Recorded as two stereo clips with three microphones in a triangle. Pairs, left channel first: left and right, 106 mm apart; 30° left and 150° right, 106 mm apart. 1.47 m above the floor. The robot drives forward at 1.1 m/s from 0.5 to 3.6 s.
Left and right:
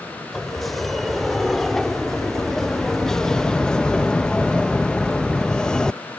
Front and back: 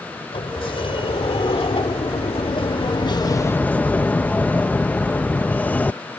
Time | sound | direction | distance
0.3 | a sliding door | straight ahead | ?